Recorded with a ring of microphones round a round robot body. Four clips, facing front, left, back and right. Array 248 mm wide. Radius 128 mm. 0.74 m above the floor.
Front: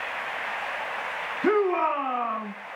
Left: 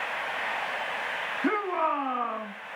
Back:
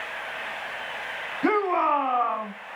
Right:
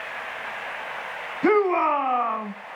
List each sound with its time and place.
1.4 s a shout: 125° right, 6 m